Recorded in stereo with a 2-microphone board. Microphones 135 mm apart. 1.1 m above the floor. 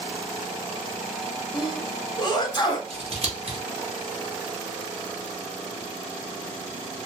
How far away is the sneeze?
About 0.7 m.